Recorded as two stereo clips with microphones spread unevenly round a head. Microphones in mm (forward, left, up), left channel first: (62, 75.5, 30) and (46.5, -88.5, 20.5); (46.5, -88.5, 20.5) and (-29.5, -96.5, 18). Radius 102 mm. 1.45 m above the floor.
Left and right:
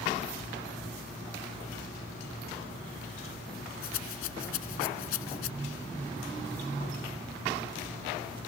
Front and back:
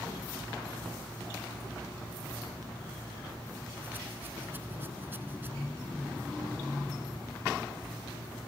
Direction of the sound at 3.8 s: 105° left.